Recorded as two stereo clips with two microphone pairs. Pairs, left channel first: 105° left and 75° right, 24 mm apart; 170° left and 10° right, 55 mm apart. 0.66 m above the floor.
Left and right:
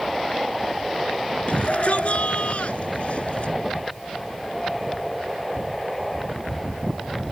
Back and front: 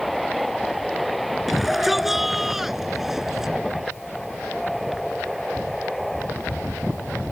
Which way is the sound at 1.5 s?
75° left.